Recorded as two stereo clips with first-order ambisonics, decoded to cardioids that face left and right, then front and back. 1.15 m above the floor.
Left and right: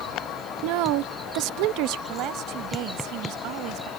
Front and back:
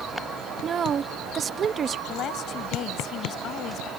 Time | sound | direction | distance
0.6 | a woman speaking | 115° right | ?
2.1 | a woman speaking | 50° right | ?